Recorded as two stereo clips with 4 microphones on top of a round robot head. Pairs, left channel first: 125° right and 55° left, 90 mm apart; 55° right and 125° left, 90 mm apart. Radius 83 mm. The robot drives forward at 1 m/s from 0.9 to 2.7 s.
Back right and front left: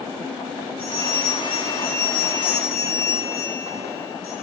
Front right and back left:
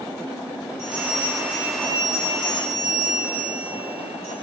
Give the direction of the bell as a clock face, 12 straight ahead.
2 o'clock.